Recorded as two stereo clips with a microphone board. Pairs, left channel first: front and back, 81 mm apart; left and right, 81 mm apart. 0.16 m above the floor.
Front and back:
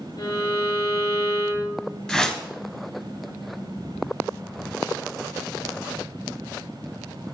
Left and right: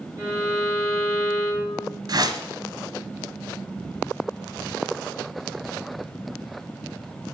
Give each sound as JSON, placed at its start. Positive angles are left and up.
{"t": 0.2, "sound": "a violin", "azimuth_deg": -30, "distance_m": 5.5}
{"t": 2.1, "sound": "a whoosh", "azimuth_deg": -80, "distance_m": 1.0}